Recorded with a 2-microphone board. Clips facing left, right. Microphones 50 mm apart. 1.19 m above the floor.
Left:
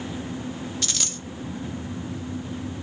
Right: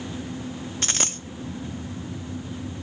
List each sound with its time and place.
0.8 s a dropped coin: 40° right (ahead or behind), 0.6 m